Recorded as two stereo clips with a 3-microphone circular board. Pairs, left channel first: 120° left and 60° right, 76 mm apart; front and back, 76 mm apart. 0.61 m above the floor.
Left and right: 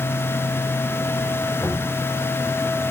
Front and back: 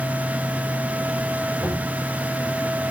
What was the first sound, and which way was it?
Knocking, 65° left.